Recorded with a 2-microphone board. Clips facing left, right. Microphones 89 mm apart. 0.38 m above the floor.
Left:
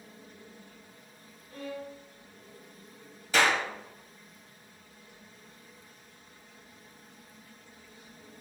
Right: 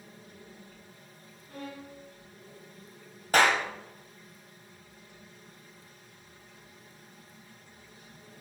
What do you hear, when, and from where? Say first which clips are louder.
1.5 s a violin: left 3 dB; 60° right (ahead or behind), 1.7 m
3.3 s a clap: right 2 dB; 50° right (ahead or behind), 1.4 m